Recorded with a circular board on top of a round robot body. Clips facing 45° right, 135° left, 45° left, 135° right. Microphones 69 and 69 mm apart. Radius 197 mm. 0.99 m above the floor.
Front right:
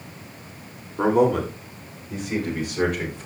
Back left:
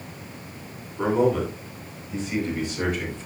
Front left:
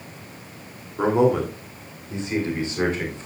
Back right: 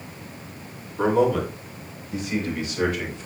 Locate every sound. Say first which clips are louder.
1.0 s a man speaking: front right 2 dB, front left 1 dB; 25° right, 3 m; by 3.3 s 15° right, 4.5 m